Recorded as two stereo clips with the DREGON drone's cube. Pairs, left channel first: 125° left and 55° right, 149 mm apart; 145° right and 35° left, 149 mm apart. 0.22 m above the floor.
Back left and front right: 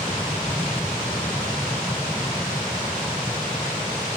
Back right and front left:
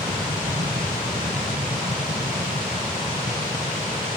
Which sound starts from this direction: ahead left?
An aircraft, at 0.0 s.